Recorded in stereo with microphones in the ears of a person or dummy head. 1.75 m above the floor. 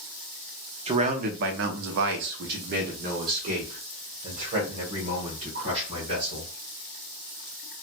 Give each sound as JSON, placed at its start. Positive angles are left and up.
{"t": 0.9, "sound": "a man speaking", "side_deg": -30, "distance_m": 0.6}